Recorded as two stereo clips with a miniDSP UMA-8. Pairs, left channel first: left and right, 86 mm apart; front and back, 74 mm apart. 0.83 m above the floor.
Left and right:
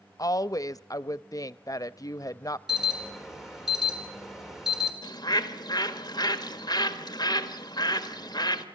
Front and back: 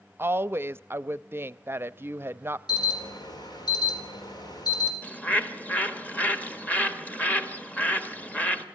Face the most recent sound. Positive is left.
turn(degrees=65)